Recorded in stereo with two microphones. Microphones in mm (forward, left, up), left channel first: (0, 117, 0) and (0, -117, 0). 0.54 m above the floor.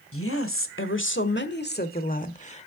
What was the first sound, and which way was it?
A woman speaking, 70° left (ahead or behind).